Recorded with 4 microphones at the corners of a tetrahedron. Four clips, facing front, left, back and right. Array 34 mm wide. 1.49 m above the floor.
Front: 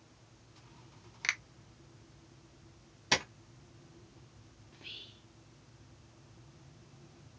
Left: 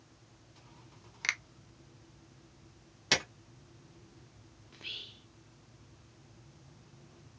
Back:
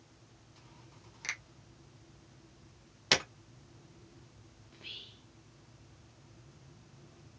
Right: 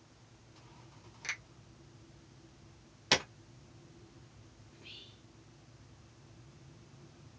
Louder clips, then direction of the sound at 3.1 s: Even, back 2 dB; 175° right.